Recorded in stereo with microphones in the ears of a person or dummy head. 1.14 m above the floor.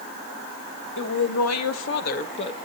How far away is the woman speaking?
About 1.1 m.